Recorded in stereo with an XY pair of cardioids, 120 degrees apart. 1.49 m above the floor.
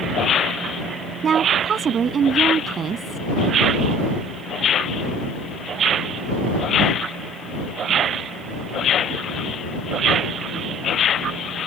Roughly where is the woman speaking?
Ahead right.